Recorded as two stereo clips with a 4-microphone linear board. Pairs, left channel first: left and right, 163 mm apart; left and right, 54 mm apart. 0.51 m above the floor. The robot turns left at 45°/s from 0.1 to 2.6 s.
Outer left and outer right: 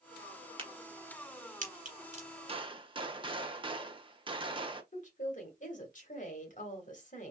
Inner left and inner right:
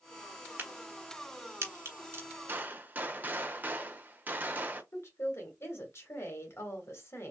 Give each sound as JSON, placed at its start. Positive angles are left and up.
{"t": 0.6, "sound": "a crack", "side_deg": -35, "distance_m": 1.5}
{"t": 2.5, "sound": "a gunshot", "side_deg": -35, "distance_m": 0.5}
{"t": 4.9, "sound": "a woman speaking", "side_deg": 50, "distance_m": 1.4}